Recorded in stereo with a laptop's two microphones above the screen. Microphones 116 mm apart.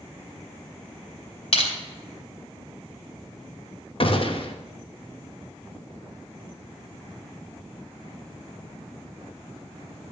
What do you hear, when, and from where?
1.5 s crushing: 55° left (ahead or behind), 2.5 m
4.0 s a gunshot: 50° left (ahead or behind), 0.7 m